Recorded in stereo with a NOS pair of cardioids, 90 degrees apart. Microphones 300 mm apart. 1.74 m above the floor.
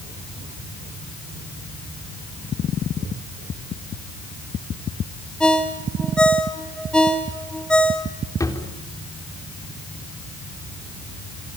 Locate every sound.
5.4 s a ringtone: 5° left, 2.5 m
8.4 s a drawer: 10° left, 3.5 m